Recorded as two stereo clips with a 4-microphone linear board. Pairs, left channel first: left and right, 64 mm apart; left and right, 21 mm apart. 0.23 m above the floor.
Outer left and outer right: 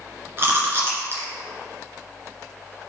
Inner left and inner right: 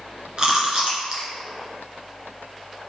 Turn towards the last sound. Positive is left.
turn(degrees=-40)  # may be behind; listen again after turning